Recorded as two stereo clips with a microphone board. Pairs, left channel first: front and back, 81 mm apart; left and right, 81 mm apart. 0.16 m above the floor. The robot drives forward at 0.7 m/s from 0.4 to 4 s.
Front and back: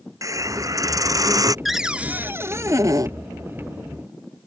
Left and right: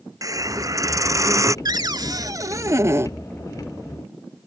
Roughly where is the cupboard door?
Right.